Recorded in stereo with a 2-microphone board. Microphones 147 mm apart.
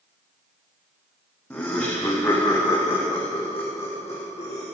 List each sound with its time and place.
1.5 s laughter: 15° left (ahead or behind), 5.5 m; by 4.7 s 55° left (ahead or behind), 6 m